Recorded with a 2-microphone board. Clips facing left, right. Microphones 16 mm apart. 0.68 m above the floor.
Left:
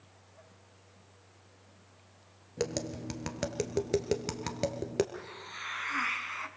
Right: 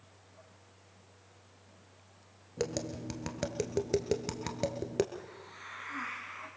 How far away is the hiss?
About 2 m.